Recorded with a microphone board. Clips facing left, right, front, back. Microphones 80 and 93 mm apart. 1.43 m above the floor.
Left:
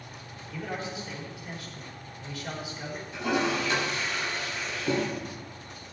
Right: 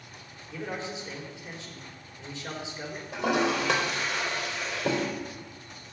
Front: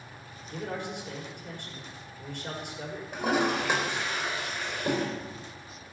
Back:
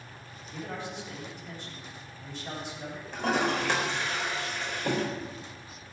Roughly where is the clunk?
I don't hear a clunk.